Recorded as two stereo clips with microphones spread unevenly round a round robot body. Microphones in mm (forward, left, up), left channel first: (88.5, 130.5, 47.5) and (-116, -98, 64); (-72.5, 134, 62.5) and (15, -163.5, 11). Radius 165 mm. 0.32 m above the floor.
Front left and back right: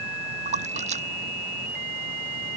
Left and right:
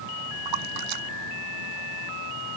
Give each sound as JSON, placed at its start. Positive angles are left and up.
{"t": 0.5, "sound": "a splash", "azimuth_deg": -65}